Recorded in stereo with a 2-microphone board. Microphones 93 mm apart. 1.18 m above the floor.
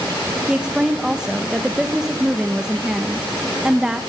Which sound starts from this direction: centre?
A woman speaking, at 0.5 s.